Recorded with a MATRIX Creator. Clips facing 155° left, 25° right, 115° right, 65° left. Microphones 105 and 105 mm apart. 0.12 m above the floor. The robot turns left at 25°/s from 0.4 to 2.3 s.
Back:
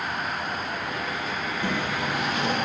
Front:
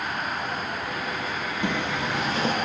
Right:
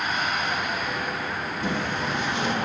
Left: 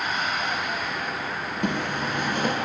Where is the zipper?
45° left, 5 m; by 2.5 s 30° left, 5 m.